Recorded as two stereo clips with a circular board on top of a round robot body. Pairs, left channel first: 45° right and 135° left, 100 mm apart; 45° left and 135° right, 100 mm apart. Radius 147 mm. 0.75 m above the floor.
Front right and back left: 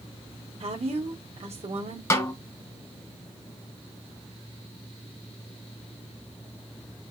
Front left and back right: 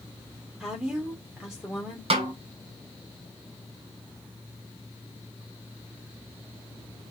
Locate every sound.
0.6 s a woman speaking: 140° left, 2.5 m
2.1 s a snare drum: 110° right, 2.5 m